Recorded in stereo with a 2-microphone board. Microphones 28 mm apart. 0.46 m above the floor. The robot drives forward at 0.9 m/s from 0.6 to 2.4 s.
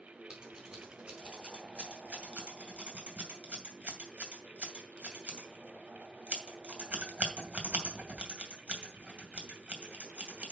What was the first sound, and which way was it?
Scissors, 25° right (ahead or behind).